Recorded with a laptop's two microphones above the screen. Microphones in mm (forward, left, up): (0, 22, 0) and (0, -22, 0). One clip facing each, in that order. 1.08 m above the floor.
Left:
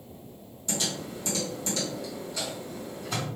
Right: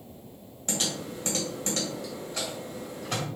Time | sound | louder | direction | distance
0.7 | typing on a keyboard | even | 45° right (ahead or behind) | 1.1 m